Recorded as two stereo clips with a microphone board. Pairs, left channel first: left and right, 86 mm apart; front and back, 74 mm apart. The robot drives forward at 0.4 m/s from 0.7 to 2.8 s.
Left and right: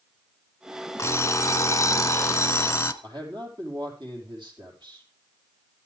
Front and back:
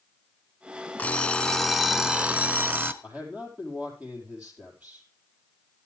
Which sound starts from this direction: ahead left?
An alarm clock, at 1.0 s.